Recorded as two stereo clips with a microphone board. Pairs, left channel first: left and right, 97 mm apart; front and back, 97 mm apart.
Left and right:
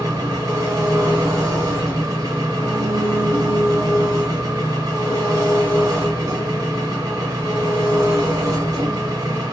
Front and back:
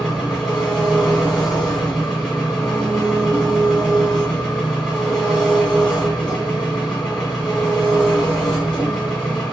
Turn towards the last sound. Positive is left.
turn(degrees=-80)